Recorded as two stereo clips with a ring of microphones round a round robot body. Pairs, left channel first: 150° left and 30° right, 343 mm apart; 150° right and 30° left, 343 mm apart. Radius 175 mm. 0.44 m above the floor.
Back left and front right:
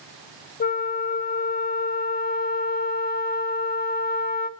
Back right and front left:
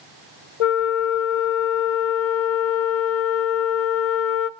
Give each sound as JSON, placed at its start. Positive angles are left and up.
{"t": 0.6, "sound": "a flute", "azimuth_deg": -145, "distance_m": 0.6}